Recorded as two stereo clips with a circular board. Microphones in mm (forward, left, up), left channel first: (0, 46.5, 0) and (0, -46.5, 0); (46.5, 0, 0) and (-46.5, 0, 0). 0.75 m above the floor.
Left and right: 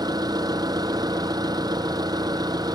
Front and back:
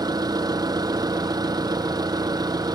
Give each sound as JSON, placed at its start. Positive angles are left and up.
{"t": 0.0, "sound": "an engine running", "azimuth_deg": -135}